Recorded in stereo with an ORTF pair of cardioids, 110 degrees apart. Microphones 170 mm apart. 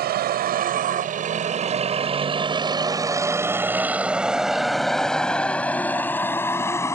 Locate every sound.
0.0 s a vehicle: 65° right; by 7.0 s 15° left